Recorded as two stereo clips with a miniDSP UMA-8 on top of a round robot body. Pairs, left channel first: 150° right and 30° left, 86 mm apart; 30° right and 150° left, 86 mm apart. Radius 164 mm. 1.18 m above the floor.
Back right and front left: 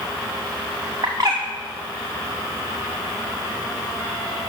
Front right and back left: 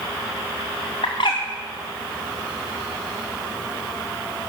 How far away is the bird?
About 0.5 m.